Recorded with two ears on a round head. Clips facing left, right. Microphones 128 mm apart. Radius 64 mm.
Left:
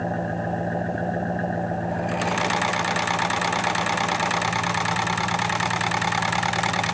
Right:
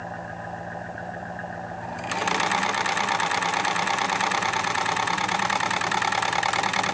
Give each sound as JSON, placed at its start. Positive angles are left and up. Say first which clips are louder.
{"t": 0.0, "sound": "an engine running", "louder": "left 8 dB", "side_deg": 50}